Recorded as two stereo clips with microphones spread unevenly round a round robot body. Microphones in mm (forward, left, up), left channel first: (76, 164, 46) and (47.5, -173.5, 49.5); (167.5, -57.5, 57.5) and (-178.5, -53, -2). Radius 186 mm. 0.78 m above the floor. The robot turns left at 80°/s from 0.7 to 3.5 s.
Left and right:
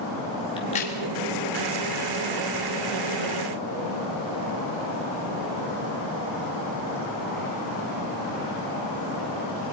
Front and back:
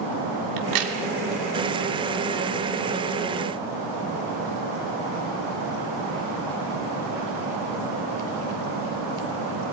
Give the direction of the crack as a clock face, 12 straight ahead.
7 o'clock.